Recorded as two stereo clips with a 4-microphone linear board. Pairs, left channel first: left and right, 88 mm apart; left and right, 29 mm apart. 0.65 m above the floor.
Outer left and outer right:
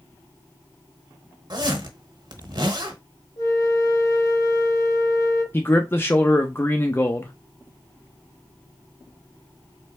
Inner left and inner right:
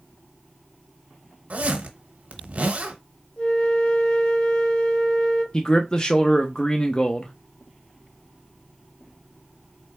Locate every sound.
1.5 s a zipper: 55° right (ahead or behind), 1.0 m
3.4 s a flute: 40° left (ahead or behind), 3.5 m
5.5 s a man speaking: 25° left (ahead or behind), 0.6 m